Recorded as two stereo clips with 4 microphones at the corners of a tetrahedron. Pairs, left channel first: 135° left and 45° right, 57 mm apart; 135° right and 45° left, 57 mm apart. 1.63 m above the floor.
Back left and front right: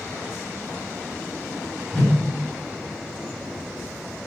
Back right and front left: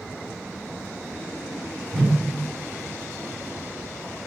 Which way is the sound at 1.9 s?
155° right.